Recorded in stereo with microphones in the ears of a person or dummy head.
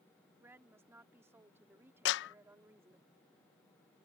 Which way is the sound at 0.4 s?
10° right (ahead or behind).